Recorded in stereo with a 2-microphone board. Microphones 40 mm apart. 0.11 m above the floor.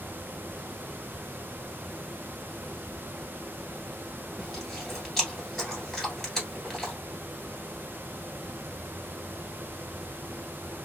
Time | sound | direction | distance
4.4 | chewing | 5° left (ahead or behind) | 1.5 m